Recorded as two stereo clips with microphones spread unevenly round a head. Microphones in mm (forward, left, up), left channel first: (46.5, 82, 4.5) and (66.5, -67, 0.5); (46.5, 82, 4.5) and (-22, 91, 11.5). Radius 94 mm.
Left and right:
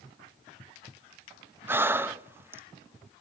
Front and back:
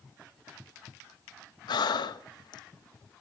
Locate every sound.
1.7 s breathing: 5° right, 0.9 m